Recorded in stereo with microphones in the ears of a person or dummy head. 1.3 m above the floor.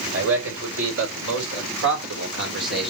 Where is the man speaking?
80° right, 5.5 m; by 2.9 s 70° right (ahead or behind), 4 m.